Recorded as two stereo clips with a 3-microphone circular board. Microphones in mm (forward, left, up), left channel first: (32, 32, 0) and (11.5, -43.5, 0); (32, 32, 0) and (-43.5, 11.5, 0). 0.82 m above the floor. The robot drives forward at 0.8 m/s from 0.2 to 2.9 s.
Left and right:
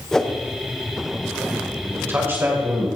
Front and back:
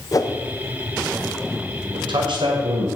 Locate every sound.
0.1 s a whoosh: 10° right, 1.4 m
1.9 s a man speaking: 165° right, 2.5 m; by 2.9 s 170° right, 3.5 m